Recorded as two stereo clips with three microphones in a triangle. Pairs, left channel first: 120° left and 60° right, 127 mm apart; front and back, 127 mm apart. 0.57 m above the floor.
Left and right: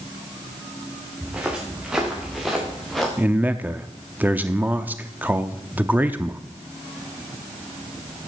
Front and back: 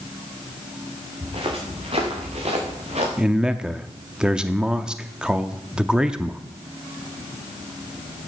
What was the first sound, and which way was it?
Footsteps, 140° right.